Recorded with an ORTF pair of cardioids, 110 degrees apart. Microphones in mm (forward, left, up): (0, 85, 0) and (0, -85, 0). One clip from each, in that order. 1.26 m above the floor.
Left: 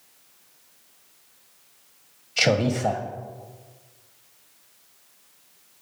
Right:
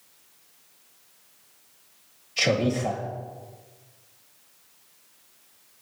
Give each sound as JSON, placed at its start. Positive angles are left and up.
{"t": 2.4, "sound": "a man speaking", "azimuth_deg": 15, "distance_m": 0.6}